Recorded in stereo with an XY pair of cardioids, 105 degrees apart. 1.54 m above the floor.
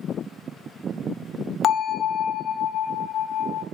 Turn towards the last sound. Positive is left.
turn(degrees=60)